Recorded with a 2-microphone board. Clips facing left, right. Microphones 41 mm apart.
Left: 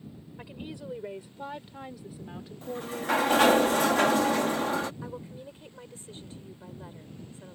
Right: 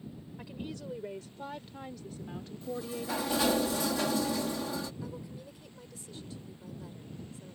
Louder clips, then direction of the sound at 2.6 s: Left 4 dB; 55° left (ahead or behind).